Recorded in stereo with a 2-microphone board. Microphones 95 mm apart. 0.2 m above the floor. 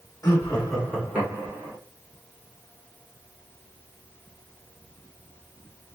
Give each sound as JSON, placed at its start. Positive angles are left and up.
{"t": 0.2, "sound": "laughter", "side_deg": 25, "distance_m": 1.1}